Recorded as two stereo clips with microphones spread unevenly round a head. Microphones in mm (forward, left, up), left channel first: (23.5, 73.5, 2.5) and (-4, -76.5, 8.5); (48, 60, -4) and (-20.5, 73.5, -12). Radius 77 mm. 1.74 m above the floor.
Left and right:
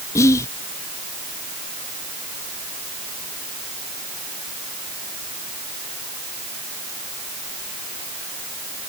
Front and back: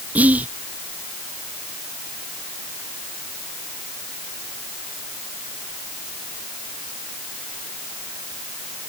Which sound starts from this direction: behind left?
Whispering, at 0.1 s.